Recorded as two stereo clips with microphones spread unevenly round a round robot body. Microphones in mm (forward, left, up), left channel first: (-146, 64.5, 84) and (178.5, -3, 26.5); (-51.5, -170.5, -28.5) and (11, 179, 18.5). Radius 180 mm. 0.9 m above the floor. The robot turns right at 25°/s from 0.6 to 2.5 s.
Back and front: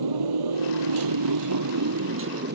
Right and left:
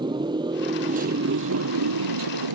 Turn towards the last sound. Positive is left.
turn(degrees=50)